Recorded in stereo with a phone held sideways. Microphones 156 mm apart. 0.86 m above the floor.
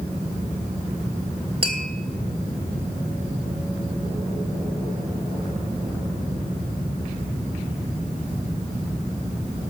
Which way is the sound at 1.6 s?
40° right (ahead or behind).